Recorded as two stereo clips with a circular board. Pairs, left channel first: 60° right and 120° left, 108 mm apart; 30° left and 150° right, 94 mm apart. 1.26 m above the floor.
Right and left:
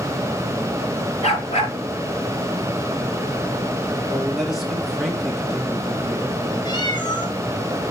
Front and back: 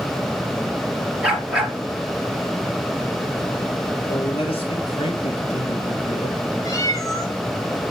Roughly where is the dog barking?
Right.